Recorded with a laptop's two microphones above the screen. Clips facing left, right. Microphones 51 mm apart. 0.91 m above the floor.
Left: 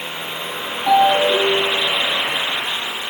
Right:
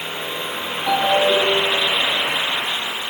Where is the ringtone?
25° left (ahead or behind), 5.5 m.